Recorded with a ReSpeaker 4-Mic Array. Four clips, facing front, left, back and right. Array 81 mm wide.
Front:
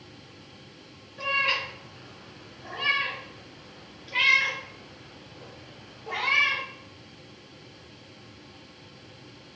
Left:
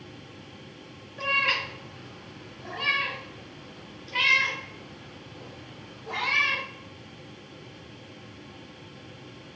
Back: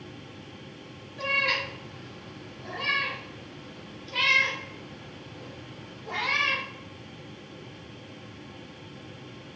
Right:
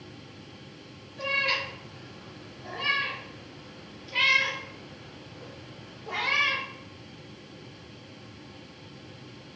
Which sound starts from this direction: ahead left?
A cat meowing, at 1.2 s.